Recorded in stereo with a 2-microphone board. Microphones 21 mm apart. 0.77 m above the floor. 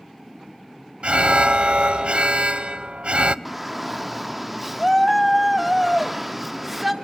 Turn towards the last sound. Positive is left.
turn(degrees=0)  # may be behind; listen again after turning